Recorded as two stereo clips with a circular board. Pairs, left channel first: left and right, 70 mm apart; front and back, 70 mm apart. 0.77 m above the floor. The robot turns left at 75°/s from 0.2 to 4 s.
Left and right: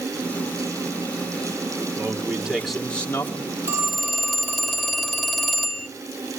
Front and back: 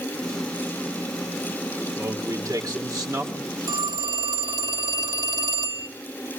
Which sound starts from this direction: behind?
A phone ringing, at 3.7 s.